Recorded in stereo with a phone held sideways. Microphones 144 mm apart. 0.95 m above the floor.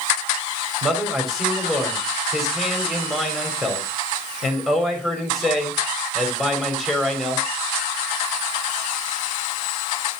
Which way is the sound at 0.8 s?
Centre (ahead or behind).